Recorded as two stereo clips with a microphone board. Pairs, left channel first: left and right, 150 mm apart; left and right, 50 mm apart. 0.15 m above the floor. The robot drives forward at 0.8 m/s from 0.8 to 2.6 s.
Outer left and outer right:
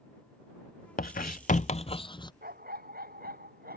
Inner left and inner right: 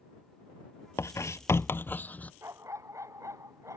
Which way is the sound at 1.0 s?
70° left (ahead or behind).